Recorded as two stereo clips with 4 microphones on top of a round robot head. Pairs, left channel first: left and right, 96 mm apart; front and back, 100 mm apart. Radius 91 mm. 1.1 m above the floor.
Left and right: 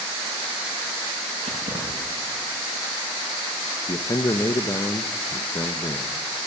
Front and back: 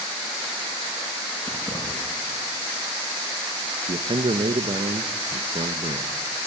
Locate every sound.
1.4 s keys jangling: 75° right, 9.5 m
3.9 s a man speaking: 145° left, 1.1 m